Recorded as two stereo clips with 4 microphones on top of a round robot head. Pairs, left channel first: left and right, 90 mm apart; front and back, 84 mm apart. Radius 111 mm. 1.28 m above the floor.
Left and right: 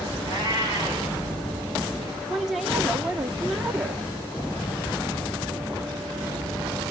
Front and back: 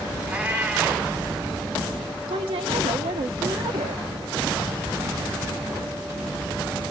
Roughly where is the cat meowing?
Left.